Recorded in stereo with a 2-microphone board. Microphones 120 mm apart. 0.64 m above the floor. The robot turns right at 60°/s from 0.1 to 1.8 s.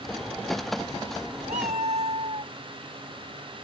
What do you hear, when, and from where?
1.5 s a cat meowing: 70° right (ahead or behind); by 2.5 s 60° right (ahead or behind)